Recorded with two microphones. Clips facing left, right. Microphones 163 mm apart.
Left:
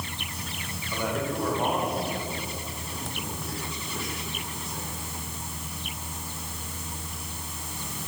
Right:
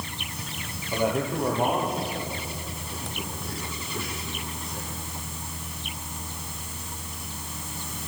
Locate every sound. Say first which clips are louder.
0.9 s a man speaking: right 4 dB; 20° right (ahead or behind), 9 m; by 4.9 s centre (ahead or behind), 11.5 m